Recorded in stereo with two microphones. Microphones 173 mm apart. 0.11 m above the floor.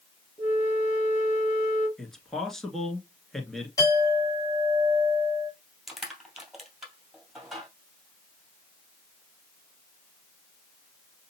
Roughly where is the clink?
Left.